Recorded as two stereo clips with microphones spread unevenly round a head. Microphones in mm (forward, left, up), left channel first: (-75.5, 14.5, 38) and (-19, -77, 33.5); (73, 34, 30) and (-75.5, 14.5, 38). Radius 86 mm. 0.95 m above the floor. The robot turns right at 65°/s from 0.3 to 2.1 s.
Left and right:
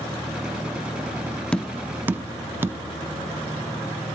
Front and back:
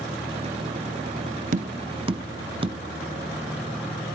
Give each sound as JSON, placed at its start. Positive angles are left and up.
{"t": 1.5, "sound": "tapping", "azimuth_deg": -165, "distance_m": 0.5}